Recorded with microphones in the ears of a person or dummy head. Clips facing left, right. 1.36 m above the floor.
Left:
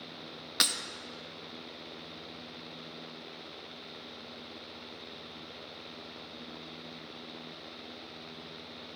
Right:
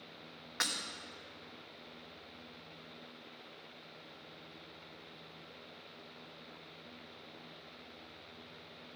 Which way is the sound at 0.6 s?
50° left (ahead or behind).